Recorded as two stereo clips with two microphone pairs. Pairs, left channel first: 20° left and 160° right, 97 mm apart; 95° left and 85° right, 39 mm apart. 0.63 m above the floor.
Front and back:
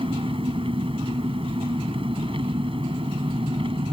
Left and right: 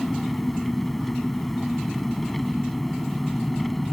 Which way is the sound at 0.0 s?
175° right.